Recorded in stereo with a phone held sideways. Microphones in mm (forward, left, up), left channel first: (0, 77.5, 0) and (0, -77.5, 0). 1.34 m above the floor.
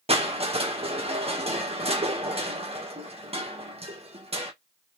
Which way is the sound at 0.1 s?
40° right (ahead or behind).